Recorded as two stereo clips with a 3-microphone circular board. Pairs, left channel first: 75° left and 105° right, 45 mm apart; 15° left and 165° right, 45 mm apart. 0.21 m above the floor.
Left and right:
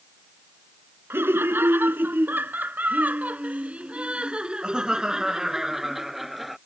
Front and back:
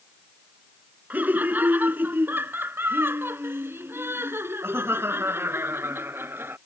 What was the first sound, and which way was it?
Laughter, 120° right.